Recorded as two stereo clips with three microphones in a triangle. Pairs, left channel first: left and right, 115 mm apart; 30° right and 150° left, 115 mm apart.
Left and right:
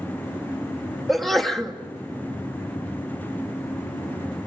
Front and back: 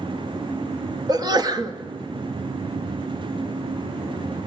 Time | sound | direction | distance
1.1 | a sneeze | straight behind | 1.3 m